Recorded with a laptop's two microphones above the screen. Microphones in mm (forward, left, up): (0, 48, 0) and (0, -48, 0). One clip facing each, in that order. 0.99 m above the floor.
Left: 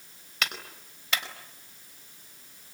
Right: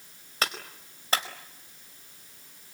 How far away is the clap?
About 4 m.